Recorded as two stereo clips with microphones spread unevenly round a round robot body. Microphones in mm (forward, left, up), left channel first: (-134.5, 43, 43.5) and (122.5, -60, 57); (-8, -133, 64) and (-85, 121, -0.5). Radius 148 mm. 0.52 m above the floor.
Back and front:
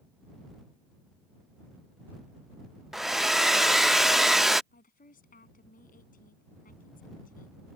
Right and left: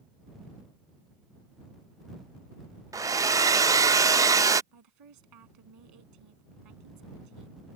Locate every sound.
2.9 s a hair dryer: 70° left
4.7 s a woman speaking: 95° left